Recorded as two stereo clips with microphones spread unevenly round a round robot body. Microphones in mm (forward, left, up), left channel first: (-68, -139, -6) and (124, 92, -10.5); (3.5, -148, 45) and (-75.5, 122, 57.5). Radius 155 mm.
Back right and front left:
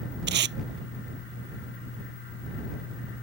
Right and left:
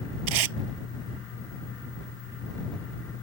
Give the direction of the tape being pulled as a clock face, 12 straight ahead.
8 o'clock.